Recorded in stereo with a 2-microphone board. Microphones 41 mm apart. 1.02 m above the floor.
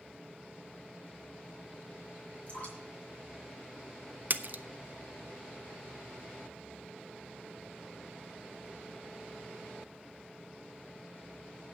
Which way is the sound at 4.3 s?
50° right (ahead or behind).